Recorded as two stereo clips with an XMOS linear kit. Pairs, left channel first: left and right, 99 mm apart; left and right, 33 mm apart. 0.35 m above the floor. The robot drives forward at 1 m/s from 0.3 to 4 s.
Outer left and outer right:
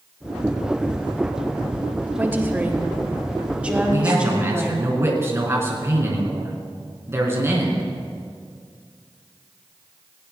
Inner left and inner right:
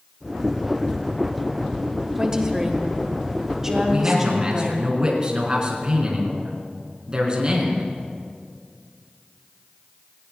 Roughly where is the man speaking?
Right.